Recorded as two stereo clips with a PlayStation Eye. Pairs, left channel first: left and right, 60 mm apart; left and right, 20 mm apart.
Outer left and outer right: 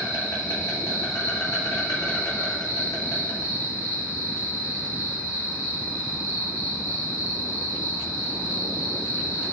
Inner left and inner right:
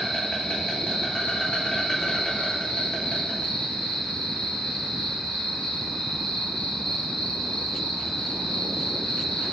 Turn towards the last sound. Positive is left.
turn(degrees=85)